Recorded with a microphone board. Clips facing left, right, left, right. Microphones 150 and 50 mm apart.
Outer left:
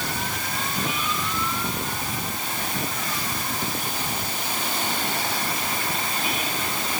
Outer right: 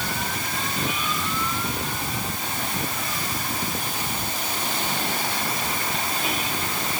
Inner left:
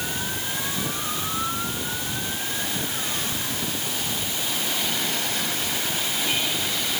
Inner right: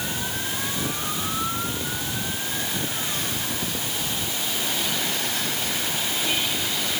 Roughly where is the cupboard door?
I don't hear a cupboard door.